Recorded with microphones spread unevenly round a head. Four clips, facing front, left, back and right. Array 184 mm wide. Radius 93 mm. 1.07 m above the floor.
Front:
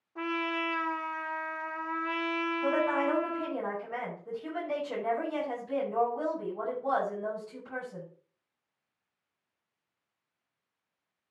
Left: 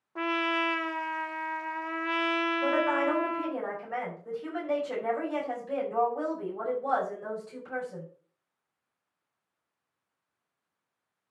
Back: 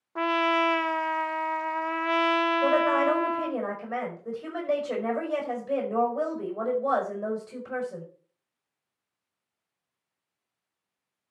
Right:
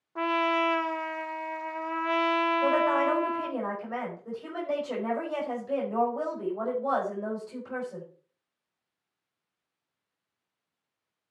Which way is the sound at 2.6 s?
170° right.